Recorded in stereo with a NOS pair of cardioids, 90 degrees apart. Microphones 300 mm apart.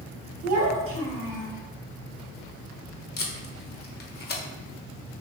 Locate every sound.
0.4 s a child speaking: 60° right, 1.6 m; by 1.5 s 30° right, 2 m
3.2 s tape being pulled: 35° left, 1.1 m